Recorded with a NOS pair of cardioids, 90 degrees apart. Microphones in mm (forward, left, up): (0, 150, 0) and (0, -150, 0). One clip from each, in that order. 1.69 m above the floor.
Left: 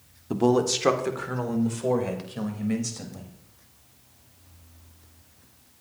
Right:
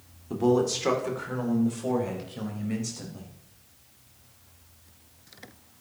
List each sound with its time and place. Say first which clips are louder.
0.3 s a man speaking: left 2 dB; 40° left, 1.7 m; by 3.3 s 35° left, 4.5 m